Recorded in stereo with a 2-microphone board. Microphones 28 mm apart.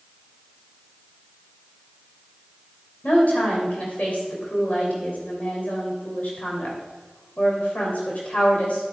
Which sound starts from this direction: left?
A woman speaking, at 3.0 s.